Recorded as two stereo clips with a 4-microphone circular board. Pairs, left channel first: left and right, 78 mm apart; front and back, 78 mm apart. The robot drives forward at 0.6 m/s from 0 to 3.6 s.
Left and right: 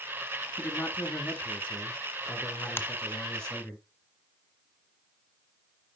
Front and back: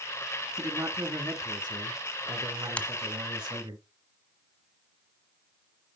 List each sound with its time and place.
0.6 s a man speaking: 150° left, 1.7 m; by 3.8 s 165° left, 3.5 m
2.8 s a finger snap: 60° left, 1.0 m; by 2.9 s 65° left, 1.0 m